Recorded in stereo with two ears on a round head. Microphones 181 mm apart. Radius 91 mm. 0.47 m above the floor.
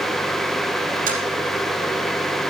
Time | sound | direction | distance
1.1 | tapping | 45° right (ahead or behind) | 4.5 m